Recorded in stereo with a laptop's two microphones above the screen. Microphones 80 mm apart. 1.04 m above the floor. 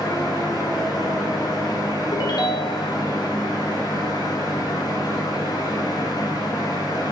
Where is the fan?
60° left (ahead or behind), 4 m.